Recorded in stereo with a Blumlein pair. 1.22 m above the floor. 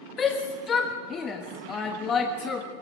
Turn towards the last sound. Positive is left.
turn(degrees=25)